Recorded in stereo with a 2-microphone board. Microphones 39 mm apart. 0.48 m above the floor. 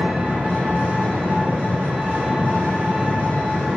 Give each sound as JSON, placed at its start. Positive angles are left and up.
{"t": 0.0, "sound": "an engine running", "side_deg": -65, "distance_m": 0.9}